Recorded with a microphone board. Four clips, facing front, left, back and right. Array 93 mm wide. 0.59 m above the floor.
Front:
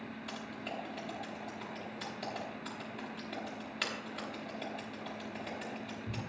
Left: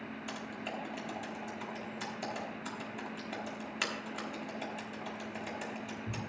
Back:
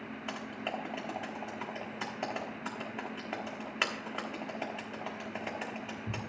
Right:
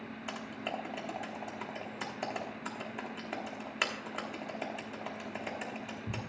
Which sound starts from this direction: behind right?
Typing on a keyboard, at 0.3 s.